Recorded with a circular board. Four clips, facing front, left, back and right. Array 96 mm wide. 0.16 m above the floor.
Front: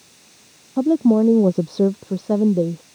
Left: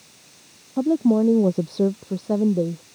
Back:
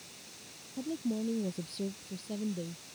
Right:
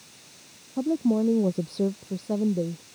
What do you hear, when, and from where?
0.8 s a woman speaking: 20° left